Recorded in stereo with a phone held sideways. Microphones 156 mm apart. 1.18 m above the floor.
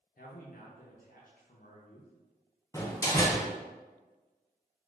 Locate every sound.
0.2 s a man speaking: 65° left (ahead or behind), 0.6 m
2.7 s a door slam: 20° left (ahead or behind), 0.6 m